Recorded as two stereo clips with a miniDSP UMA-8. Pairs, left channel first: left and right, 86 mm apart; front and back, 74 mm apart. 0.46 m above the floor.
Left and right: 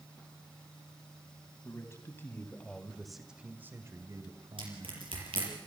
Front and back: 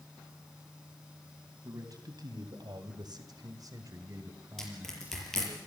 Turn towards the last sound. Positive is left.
turn(degrees=-85)